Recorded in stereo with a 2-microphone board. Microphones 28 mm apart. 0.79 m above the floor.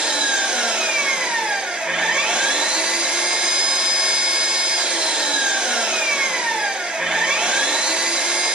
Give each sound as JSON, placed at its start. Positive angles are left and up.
{"t": 0.0, "sound": "an engine running", "side_deg": -40, "distance_m": 1.0}